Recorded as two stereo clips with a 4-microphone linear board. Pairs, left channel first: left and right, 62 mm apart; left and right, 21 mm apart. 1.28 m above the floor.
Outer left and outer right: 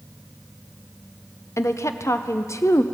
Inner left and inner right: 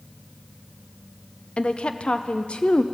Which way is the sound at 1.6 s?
50° left (ahead or behind).